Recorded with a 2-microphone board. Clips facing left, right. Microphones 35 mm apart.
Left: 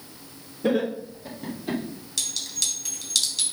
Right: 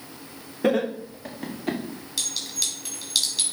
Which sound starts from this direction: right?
Laughter, at 0.6 s.